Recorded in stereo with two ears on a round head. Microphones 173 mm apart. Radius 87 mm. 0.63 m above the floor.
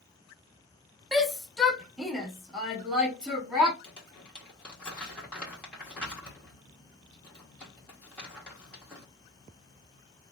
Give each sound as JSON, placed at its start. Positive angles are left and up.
{"t": 1.1, "sound": "a shout", "side_deg": 0, "distance_m": 1.0}
{"t": 3.8, "sound": "crumpling", "side_deg": 5, "distance_m": 1.9}